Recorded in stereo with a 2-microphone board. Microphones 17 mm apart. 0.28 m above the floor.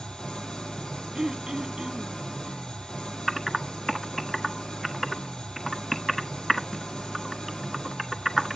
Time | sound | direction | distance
0.0 | an engine running | 75° left (ahead or behind) | 6 m
1.1 | throat clearing | 60° right (ahead or behind) | 1.1 m
3.3 | typing on a keyboard | 5° left (ahead or behind) | 1.2 m